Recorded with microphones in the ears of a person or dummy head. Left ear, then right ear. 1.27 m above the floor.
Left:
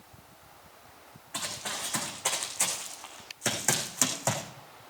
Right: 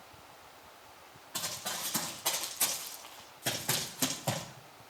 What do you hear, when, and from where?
1.3 s running footsteps: 25° left (ahead or behind), 6 m; by 4.4 s 60° left (ahead or behind), 4.5 m